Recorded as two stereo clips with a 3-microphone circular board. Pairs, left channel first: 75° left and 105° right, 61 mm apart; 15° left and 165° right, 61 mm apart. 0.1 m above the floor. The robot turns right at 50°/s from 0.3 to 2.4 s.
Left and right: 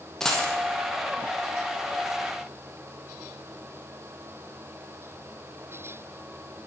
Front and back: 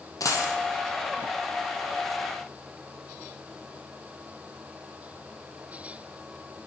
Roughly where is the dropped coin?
Ahead.